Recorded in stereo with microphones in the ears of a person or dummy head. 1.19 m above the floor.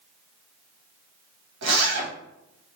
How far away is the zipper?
About 1.3 m.